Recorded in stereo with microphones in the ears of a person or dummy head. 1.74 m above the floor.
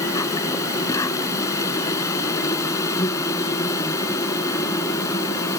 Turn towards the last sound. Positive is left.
turn(degrees=15)  # may be behind; listen again after turning